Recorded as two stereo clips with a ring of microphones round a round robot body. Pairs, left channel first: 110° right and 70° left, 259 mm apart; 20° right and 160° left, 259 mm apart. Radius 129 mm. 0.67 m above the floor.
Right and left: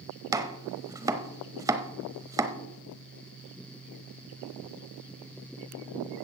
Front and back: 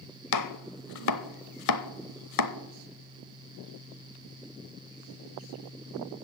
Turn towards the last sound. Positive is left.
turn(degrees=-10)